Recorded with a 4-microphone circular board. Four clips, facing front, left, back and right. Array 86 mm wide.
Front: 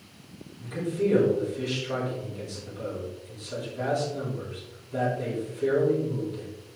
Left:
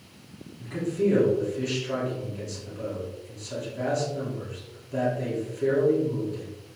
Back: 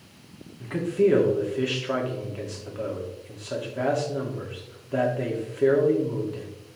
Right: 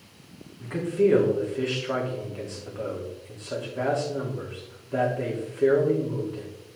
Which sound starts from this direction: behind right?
A man speaking, at 0.6 s.